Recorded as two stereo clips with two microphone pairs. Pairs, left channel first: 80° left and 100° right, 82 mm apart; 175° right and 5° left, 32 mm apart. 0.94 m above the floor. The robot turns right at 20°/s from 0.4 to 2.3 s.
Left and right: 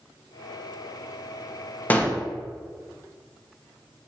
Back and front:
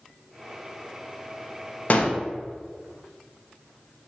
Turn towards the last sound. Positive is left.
turn(degrees=155)